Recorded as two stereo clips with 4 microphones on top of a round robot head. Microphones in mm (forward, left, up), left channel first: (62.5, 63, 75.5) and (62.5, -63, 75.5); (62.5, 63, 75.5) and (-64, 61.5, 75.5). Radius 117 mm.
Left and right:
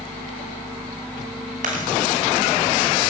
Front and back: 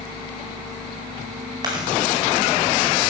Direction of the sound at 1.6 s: 120° right.